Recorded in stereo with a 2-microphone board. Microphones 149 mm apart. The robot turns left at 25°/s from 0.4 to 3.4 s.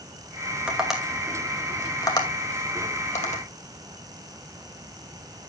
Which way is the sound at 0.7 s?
10° right (ahead or behind).